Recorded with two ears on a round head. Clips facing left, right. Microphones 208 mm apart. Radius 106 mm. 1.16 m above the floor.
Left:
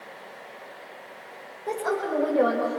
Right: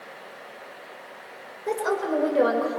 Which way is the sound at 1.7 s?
30° right (ahead or behind).